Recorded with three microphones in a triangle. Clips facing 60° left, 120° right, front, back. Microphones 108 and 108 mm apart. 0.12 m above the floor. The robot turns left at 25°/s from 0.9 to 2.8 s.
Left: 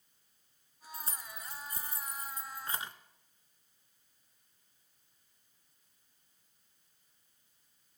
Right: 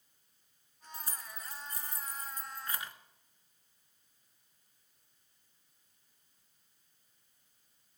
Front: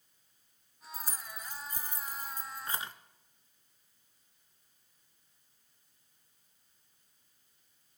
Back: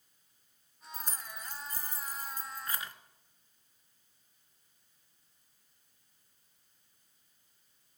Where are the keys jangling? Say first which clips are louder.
Left 1 dB, even; 80° left, 0.9 m; by 2.9 s 30° left, 0.9 m.